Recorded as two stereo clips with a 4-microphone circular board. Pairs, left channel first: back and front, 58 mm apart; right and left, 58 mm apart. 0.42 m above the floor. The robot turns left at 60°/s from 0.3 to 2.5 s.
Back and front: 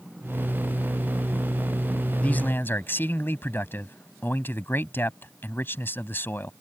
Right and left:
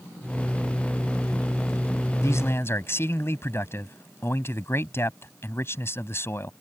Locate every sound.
2.2 s a man speaking: 115° right; by 6.5 s 130° right